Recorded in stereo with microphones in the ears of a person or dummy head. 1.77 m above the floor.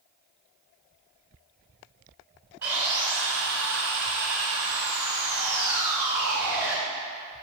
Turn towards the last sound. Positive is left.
turn(degrees=-5)  # may be behind; listen again after turning